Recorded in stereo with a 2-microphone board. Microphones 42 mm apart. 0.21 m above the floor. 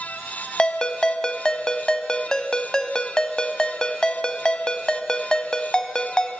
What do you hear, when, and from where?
0.6 s a ringtone: 15° left (ahead or behind), 0.5 m